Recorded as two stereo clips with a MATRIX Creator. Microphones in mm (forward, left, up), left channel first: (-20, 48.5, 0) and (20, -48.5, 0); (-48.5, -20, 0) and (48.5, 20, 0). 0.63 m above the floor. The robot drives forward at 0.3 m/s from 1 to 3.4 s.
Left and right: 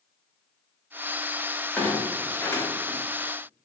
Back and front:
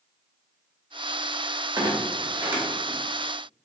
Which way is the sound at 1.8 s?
45° left.